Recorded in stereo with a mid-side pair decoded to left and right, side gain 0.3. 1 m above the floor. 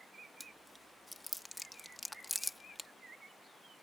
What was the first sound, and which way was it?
Chewing, 5° left.